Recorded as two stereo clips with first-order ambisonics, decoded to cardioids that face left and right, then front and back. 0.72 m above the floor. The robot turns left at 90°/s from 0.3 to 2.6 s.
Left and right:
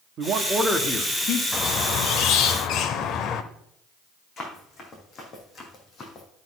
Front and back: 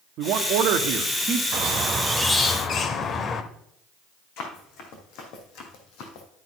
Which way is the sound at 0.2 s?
145° right.